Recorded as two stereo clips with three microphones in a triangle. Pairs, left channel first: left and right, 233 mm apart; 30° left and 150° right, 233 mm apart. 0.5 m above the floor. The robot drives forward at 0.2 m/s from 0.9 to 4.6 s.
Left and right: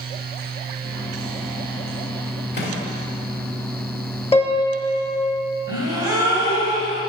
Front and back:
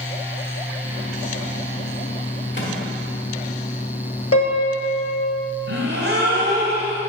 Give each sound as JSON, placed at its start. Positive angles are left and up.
{"t": 2.5, "sound": "a microwave", "azimuth_deg": 55, "distance_m": 1.5}
{"t": 4.3, "sound": "a piano", "azimuth_deg": 30, "distance_m": 0.8}
{"t": 5.7, "sound": "a gasp", "azimuth_deg": -165, "distance_m": 1.5}